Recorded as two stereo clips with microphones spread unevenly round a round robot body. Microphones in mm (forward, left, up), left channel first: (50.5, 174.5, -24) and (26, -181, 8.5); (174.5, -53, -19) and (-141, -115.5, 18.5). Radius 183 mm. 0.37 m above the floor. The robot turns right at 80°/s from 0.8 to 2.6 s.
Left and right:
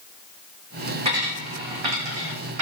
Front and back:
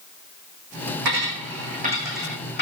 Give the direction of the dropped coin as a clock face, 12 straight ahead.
6 o'clock.